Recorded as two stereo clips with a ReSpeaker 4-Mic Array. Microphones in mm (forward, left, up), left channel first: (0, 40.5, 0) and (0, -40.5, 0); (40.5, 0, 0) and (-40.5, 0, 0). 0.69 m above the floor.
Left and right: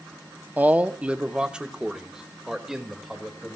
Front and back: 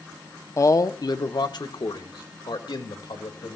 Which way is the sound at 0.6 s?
30° right.